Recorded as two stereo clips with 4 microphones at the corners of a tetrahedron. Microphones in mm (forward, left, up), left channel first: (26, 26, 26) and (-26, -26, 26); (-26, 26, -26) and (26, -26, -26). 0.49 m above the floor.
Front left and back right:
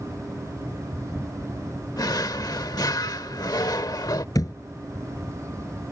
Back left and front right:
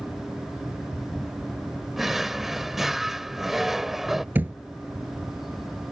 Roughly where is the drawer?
Ahead left.